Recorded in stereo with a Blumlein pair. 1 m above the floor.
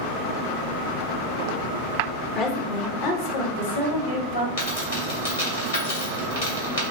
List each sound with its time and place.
2.4 s a woman speaking: 25° left, 0.9 m; by 4.5 s 60° left, 1.7 m
4.6 s a dropped coin: 65° left, 2.0 m